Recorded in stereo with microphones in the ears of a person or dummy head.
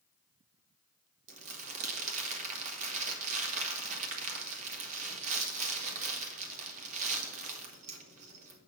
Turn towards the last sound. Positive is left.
turn(degrees=-40)  # may be behind; listen again after turning